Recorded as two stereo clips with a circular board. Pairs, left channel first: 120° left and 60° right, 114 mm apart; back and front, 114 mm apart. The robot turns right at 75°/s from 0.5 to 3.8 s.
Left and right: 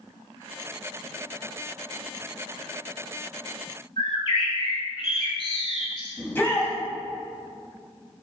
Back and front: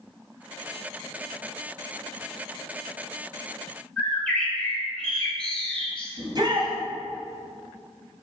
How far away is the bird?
About 1.9 m.